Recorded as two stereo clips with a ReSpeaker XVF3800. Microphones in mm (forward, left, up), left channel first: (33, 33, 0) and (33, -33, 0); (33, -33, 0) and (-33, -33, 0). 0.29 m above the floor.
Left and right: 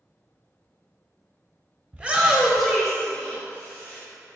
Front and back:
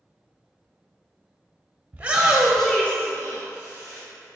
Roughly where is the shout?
Behind right.